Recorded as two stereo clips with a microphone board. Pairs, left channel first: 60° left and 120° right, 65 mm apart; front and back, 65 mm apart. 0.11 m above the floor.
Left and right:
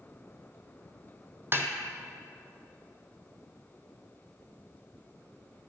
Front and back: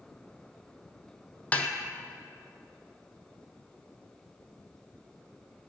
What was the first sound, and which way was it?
A snare drum, 70° right.